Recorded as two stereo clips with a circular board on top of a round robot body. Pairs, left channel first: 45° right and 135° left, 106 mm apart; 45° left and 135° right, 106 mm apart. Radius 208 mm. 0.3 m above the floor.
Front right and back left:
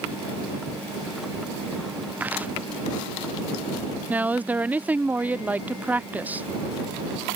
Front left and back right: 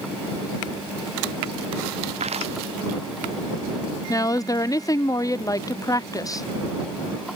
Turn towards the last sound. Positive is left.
turn(degrees=70)